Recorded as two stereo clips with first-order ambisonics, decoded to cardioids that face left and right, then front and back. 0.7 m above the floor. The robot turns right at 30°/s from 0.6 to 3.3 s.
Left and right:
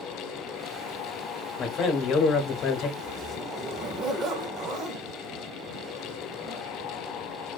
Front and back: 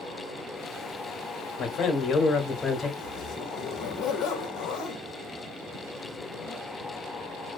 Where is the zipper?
45° right, 0.6 m; by 6.6 s 35° right, 0.6 m.